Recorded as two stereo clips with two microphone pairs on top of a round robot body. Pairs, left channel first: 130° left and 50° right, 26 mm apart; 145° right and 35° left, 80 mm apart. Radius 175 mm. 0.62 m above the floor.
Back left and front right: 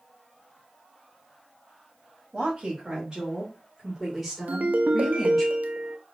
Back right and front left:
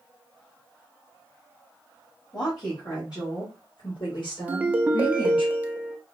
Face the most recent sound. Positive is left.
turn(degrees=-35)